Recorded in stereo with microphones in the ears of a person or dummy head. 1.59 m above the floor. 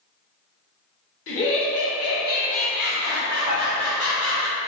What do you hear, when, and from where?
1.3 s laughter: 75° left (ahead or behind), 1.1 m; by 4.5 s 10° right (ahead or behind), 1.1 m
3.5 s dishes clattering: 25° right (ahead or behind), 0.9 m